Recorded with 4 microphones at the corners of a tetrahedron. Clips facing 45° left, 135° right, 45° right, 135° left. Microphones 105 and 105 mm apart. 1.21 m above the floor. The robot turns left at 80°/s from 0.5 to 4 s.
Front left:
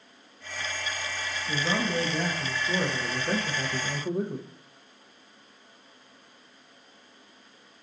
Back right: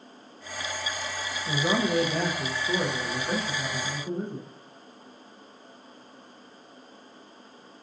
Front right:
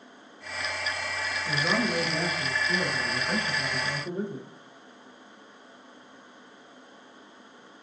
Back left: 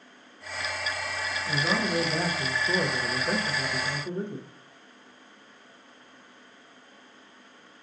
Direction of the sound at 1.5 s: 120° right.